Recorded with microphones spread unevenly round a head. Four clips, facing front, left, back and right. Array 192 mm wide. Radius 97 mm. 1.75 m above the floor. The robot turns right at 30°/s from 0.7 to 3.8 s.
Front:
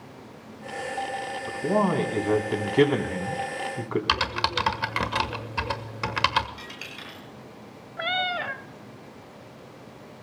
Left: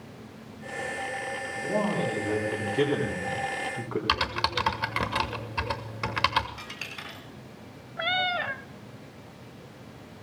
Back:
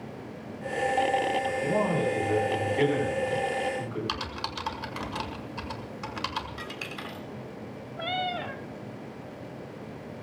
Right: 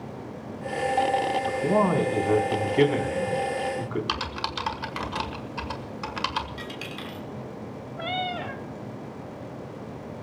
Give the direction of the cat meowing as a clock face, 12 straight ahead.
10 o'clock.